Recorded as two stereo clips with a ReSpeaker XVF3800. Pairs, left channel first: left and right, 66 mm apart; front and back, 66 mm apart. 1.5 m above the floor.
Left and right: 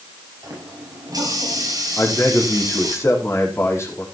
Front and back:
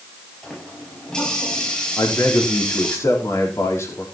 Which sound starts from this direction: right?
A running tap, at 0.4 s.